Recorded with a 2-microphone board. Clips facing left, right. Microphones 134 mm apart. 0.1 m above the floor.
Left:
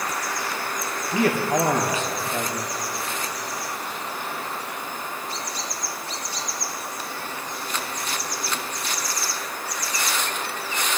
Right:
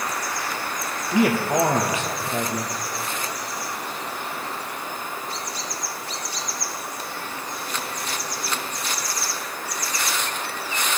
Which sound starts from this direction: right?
A man speaking, at 1.1 s.